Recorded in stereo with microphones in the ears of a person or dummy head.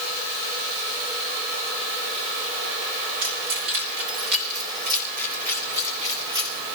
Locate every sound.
3.2 s keys jangling: 80° right, 3.5 m; by 6.7 s 25° right (ahead or behind), 3.5 m